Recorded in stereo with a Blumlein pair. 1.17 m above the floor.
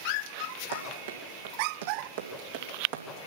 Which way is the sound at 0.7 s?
70° right.